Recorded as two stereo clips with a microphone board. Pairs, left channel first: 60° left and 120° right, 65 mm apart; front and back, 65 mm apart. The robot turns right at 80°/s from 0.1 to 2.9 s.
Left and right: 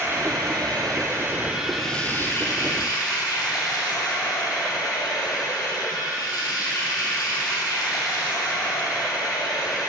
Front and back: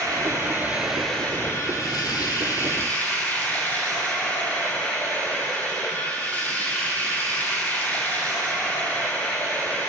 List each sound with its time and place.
0.0 s running water: 160° right, 2.5 m; by 9.9 s 65° left, 2.5 m